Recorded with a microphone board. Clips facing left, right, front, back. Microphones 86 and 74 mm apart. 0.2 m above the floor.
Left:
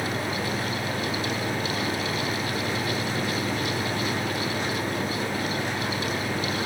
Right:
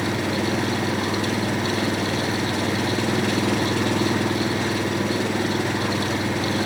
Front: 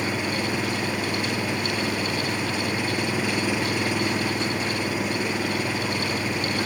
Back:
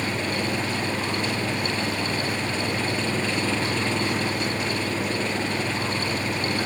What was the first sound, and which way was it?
An engine running, 80° right.